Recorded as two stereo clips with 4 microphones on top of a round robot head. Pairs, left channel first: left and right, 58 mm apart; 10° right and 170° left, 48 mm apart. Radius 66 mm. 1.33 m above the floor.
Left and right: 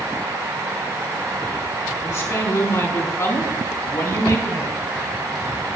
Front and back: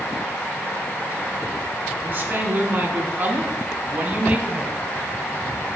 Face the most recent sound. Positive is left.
turn(degrees=110)